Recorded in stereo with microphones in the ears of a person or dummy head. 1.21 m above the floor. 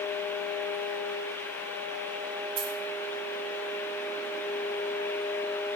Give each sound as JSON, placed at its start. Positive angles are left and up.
{"t": 2.6, "sound": "a dropped coin", "side_deg": -45, "distance_m": 7.0}